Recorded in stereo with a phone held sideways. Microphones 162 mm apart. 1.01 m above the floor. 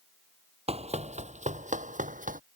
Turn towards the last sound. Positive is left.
turn(degrees=-55)  # may be behind; listen again after turning